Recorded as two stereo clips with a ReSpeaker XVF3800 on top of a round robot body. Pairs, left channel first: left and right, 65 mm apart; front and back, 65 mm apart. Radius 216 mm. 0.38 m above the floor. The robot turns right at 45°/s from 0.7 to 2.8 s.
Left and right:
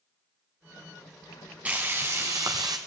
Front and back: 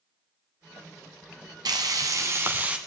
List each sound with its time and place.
1.6 s frying: 160° right, 0.8 m; by 2.8 s 110° right, 0.8 m